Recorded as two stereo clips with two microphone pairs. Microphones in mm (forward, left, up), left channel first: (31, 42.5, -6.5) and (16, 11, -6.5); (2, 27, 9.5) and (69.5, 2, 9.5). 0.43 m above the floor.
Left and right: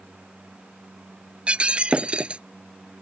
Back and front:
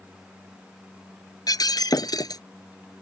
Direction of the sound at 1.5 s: 175° right.